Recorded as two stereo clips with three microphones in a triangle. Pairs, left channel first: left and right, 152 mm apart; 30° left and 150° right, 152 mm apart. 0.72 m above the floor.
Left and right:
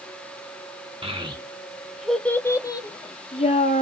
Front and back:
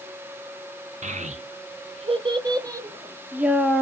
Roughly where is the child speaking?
Behind right.